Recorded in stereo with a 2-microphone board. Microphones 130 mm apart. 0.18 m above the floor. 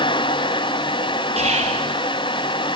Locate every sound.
1.4 s whispering: 55° right (ahead or behind), 3.5 m